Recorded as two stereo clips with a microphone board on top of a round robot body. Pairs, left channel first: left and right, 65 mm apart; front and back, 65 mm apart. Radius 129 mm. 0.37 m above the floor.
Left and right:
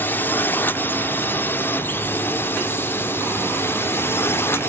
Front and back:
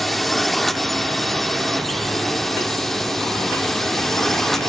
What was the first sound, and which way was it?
A drone, 85° left.